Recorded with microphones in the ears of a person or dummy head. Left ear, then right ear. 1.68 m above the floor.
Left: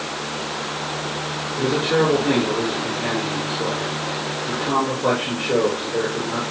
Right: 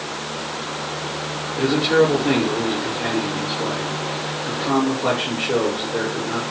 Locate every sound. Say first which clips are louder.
1.6 s a man speaking: right 3 dB; 25° right (ahead or behind), 5.5 m